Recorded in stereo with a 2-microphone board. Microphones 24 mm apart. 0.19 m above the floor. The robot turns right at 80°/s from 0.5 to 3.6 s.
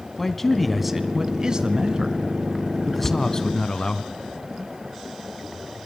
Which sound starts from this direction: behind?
A man speaking, at 0.2 s.